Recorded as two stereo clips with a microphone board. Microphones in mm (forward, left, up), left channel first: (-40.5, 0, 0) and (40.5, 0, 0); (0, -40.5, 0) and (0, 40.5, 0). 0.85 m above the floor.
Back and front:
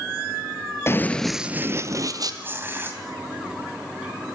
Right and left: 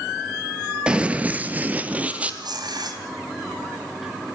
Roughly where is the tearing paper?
Ahead left.